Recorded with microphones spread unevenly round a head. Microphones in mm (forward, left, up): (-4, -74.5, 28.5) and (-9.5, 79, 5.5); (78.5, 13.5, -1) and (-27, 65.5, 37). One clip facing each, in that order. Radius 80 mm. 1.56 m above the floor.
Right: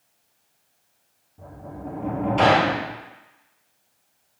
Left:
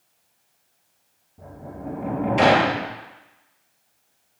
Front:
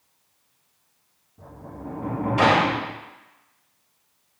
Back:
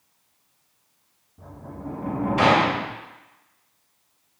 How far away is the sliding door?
About 0.7 m.